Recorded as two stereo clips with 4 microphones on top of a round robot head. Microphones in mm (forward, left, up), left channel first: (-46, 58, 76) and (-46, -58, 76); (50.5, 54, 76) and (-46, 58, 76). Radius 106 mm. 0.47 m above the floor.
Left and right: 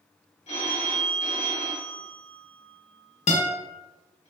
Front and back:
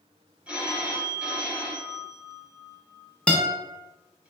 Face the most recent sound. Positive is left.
turn(degrees=75)